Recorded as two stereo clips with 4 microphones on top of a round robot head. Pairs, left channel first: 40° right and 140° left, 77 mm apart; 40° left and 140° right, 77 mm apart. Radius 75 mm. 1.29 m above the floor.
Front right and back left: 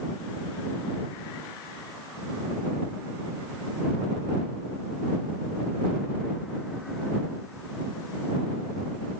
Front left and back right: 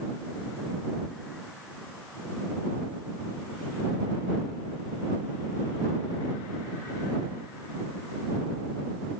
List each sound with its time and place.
Only background noise.